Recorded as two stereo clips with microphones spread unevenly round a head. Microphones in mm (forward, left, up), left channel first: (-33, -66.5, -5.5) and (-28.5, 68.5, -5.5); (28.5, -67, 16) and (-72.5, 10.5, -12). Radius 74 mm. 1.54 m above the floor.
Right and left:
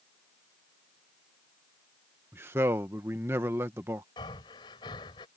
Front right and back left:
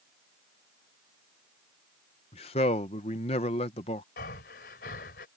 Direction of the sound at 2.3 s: 10° left.